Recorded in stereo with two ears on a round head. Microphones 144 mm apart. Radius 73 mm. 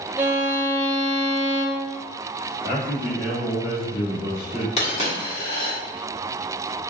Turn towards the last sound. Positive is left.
turn(degrees=45)  # may be behind; listen again after turning